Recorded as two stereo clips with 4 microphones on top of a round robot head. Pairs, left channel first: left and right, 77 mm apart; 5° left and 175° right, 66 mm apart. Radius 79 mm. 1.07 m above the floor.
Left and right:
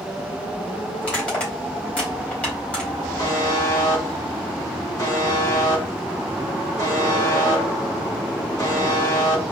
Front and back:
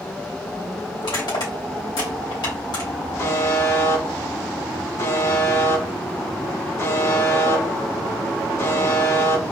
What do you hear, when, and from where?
1.0 s crushing: 15° left, 2.5 m
3.2 s a buzzer: 50° left, 2.0 m